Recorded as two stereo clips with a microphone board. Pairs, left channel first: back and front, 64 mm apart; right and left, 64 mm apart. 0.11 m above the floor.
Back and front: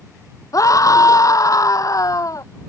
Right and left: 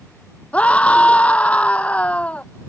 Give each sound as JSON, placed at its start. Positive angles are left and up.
{"t": 0.5, "sound": "a scream", "azimuth_deg": -160}